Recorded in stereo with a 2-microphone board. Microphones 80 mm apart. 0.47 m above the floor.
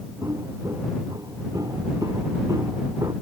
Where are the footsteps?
45° right (ahead or behind); by 3.1 s 50° right (ahead or behind).